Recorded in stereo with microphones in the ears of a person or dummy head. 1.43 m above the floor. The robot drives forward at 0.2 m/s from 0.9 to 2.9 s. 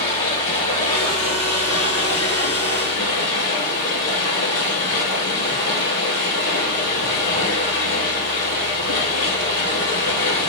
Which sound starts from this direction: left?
Running water, at 0.0 s.